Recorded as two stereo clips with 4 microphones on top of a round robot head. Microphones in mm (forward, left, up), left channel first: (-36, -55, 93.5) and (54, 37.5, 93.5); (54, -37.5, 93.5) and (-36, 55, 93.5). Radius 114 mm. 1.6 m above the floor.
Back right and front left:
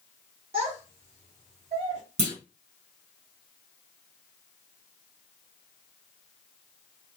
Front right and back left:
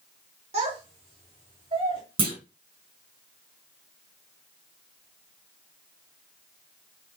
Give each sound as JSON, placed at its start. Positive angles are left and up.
{"t": 0.5, "sound": "a child speaking", "azimuth_deg": 95, "distance_m": 0.7}
{"t": 2.2, "sound": "a clunk", "azimuth_deg": 85, "distance_m": 0.9}